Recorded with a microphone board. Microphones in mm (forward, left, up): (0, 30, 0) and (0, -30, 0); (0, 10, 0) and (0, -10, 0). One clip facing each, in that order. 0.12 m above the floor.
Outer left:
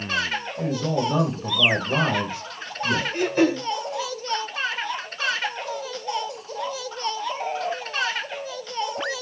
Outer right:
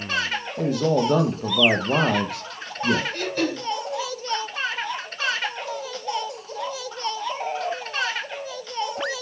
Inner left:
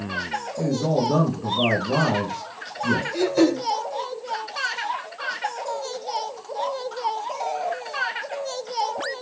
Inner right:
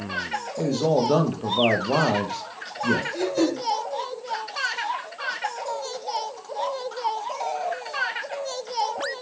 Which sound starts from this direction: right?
A man speaking, at 0.6 s.